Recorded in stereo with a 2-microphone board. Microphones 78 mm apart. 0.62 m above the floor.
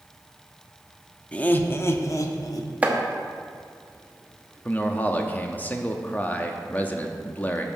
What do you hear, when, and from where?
1.3 s laughter: 15° left (ahead or behind), 0.7 m; by 2.7 s 60° left (ahead or behind), 1.1 m
2.8 s chopping: 20° right (ahead or behind), 1.0 m
4.7 s a man speaking: 25° left (ahead or behind), 0.8 m